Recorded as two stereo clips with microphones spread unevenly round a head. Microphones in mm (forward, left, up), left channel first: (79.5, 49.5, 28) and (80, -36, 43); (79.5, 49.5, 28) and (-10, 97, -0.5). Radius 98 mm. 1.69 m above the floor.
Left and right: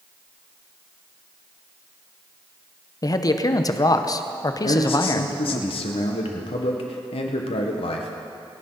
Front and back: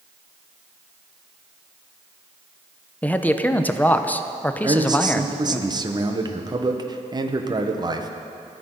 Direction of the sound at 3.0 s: 40° left.